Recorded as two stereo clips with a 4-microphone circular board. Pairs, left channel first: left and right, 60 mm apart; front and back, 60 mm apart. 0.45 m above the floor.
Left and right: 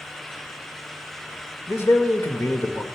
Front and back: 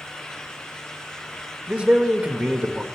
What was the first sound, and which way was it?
A man speaking, 125° left.